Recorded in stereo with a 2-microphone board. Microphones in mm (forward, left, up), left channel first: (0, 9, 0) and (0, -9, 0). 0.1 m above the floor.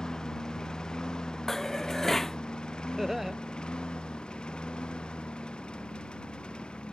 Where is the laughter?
25° right (ahead or behind).